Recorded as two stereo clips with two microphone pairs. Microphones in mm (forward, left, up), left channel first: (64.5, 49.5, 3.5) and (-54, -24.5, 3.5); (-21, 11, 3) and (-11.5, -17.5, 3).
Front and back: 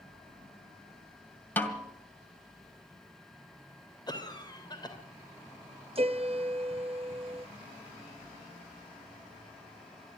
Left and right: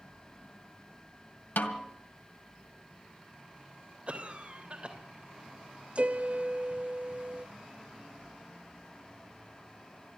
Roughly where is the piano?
Right.